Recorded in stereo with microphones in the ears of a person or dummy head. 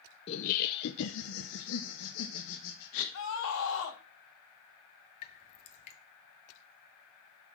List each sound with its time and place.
0.3 s laughter: 30° left (ahead or behind), 0.6 m; by 3.0 s 75° left (ahead or behind), 1.9 m
3.1 s a scream: 70° left (ahead or behind), 3 m
5.2 s dripping: 35° left (ahead or behind), 1.3 m